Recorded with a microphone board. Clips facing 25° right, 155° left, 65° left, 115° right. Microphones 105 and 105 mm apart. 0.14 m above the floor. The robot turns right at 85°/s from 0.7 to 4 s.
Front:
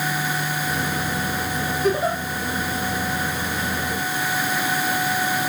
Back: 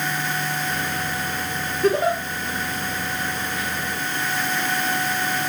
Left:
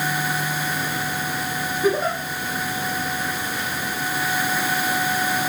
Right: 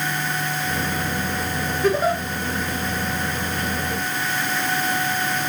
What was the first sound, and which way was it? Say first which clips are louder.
A giggle: back 3 dB, right 2 dB; 140° left.